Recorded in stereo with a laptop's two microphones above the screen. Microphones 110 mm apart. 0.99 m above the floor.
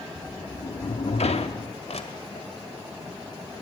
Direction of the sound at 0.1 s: 75° left (ahead or behind).